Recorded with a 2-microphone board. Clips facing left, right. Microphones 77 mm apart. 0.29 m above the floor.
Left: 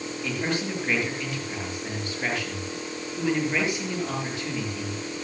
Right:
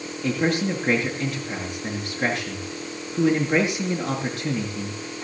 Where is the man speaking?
60° right (ahead or behind), 5.5 m.